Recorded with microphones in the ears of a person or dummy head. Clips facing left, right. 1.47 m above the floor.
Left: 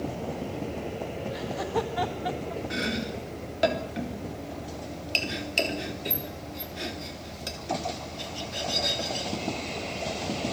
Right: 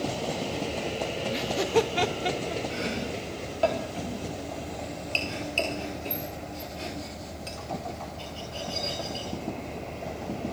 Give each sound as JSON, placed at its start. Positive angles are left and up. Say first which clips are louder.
{"t": 1.3, "sound": "laughter", "louder": "right 6 dB", "side_deg": -35, "distance_m": 1.8}
{"t": 2.7, "sound": "chopping", "louder": "even", "side_deg": 20, "distance_m": 3.5}